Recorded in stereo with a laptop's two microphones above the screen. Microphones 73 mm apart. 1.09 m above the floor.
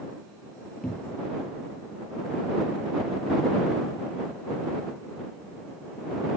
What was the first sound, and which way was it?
A cupboard door, 5° left (ahead or behind).